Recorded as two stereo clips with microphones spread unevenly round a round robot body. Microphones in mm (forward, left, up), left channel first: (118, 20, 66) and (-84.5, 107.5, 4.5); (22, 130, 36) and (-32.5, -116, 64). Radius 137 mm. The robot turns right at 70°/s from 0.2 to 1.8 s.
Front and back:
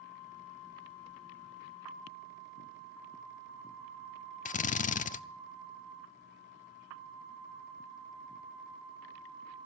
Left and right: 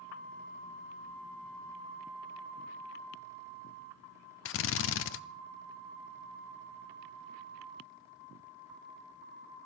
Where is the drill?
40° left, 0.6 m.